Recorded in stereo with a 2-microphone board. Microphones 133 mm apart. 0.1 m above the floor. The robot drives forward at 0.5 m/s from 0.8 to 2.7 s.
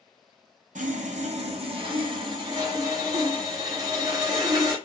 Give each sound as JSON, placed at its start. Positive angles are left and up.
{"t": 0.8, "sound": "sawing", "side_deg": -70, "distance_m": 0.6}